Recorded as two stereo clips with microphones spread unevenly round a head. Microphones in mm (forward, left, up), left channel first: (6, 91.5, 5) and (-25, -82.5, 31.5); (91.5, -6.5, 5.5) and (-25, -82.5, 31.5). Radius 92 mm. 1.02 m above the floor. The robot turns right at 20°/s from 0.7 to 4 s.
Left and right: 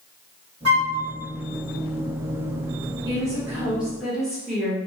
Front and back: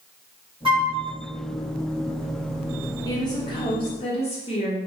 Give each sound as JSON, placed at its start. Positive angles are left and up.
{"t": 0.7, "sound": "a flute", "azimuth_deg": -95, "distance_m": 1.3}
{"t": 3.0, "sound": "a woman speaking", "azimuth_deg": -25, "distance_m": 0.9}